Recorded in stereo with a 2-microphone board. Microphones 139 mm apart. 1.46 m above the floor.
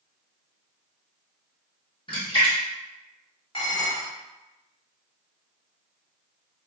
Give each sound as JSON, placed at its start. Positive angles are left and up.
{"t": 2.1, "sound": "a splash", "side_deg": 35, "distance_m": 1.3}
{"t": 3.5, "sound": "dishes clattering", "side_deg": 40, "distance_m": 1.8}